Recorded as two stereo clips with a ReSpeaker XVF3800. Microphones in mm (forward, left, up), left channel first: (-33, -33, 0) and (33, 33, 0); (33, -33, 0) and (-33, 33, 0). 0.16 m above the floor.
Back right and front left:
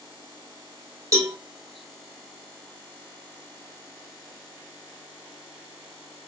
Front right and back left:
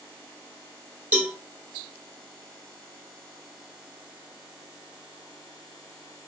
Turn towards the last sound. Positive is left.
turn(degrees=70)